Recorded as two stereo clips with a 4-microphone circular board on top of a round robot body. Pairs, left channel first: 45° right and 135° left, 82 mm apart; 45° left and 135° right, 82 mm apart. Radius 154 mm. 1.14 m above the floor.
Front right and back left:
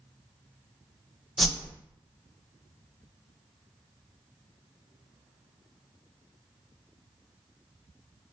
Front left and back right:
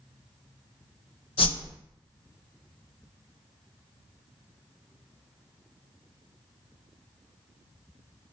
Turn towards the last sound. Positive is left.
turn(degrees=45)